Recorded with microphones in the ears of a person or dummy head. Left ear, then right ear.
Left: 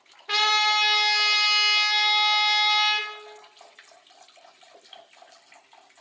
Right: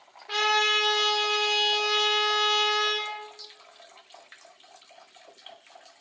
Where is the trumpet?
25° left (ahead or behind), 3 m.